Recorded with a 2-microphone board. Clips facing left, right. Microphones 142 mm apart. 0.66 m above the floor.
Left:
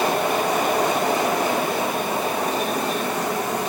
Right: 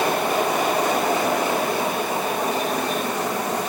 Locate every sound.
Only background noise.